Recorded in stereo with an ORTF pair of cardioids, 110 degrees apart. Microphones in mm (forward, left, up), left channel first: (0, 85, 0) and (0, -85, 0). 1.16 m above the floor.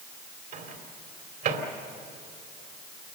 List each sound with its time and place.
0.5 s a microwave: 65° right, 2.5 m